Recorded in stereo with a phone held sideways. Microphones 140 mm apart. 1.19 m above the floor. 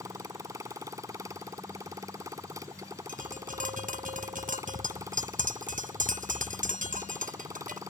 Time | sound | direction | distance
0.0 | a motorcycle | 25° right (ahead or behind) | ?
3.1 | tapping | 75° right (ahead or behind) | ?